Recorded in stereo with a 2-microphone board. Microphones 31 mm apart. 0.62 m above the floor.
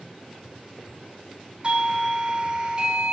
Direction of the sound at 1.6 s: 35° right (ahead or behind).